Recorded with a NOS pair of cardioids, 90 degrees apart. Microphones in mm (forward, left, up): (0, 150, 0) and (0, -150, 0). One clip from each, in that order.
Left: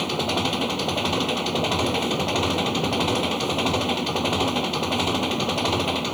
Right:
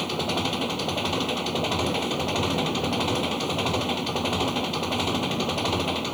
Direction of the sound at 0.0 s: 20° left.